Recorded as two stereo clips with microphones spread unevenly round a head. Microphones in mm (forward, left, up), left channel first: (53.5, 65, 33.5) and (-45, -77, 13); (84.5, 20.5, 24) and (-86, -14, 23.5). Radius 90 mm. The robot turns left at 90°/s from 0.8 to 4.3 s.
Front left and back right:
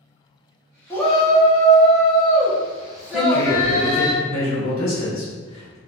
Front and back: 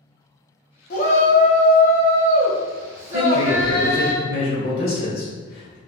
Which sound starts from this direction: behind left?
A man speaking, at 3.1 s.